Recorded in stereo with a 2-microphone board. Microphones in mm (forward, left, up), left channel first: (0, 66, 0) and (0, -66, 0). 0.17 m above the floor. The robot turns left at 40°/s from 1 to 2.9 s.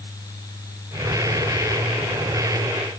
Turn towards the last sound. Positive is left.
No sound to turn to.